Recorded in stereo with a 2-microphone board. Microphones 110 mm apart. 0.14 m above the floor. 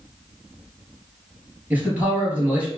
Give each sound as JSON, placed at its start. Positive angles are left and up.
{"t": 1.7, "sound": "a man speaking", "side_deg": -15, "distance_m": 1.8}